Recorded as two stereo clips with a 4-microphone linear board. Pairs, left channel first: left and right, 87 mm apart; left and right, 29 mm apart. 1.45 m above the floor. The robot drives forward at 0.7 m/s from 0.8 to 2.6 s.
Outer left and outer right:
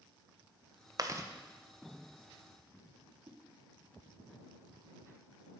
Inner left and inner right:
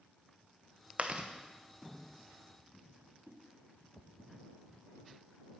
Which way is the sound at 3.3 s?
85° right.